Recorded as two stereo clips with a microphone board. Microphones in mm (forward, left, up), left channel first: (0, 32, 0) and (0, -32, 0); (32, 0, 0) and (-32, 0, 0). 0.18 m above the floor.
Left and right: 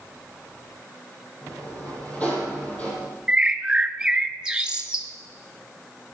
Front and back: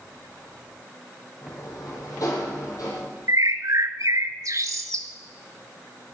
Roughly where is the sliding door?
Ahead left.